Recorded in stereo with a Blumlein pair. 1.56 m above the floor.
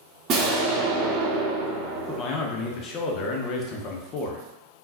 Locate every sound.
0.3 s an explosion: 35° right, 0.9 m
2.1 s a man speaking: 30° left, 0.8 m